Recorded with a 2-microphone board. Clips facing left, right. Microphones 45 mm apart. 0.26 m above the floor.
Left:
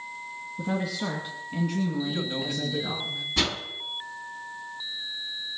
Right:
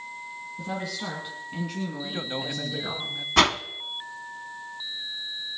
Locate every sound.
0.6 s a woman speaking: 10° left (ahead or behind), 2.0 m; by 3.0 s 20° right (ahead or behind), 3 m
2.0 s a man speaking: 30° right (ahead or behind), 1.1 m
3.4 s a whoosh: 60° right (ahead or behind), 0.8 m